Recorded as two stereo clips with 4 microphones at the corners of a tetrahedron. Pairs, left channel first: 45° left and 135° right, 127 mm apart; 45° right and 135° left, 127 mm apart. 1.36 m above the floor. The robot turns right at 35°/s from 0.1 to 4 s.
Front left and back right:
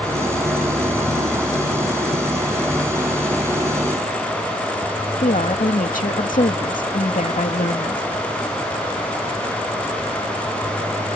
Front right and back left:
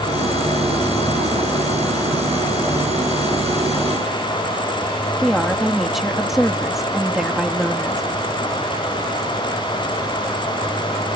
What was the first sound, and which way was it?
A woman speaking, 45° left.